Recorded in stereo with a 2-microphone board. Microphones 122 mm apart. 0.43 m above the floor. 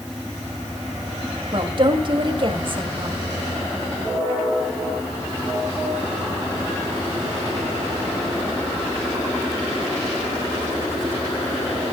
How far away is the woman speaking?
About 2.5 m.